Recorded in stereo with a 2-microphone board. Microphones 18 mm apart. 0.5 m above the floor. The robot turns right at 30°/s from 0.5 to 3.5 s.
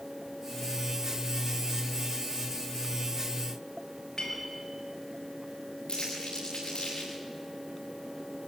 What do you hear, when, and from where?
4.2 s a clink: 45° left (ahead or behind), 5.5 m
5.9 s crumpling: 60° left (ahead or behind), 8 m